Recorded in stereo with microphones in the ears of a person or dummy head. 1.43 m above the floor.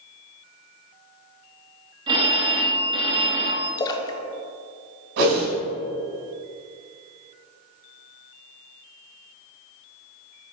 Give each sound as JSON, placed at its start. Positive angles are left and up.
{"t": 2.1, "sound": "a phone ringing", "side_deg": -25, "distance_m": 1.0}
{"t": 3.8, "sound": "a splash", "side_deg": 20, "distance_m": 0.5}
{"t": 5.2, "sound": "a whoosh", "side_deg": -50, "distance_m": 1.7}